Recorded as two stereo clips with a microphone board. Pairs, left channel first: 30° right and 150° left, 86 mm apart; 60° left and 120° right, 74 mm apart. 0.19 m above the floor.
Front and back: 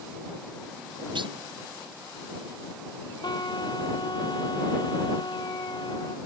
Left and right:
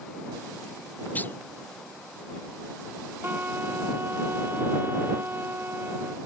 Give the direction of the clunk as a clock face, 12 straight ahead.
8 o'clock.